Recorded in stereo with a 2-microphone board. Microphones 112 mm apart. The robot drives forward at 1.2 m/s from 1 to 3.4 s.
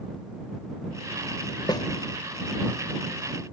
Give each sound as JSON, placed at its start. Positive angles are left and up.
{"t": 1.7, "sound": "a snare drum", "side_deg": 35}